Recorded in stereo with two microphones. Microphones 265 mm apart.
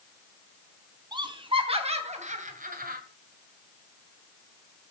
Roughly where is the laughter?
Centre.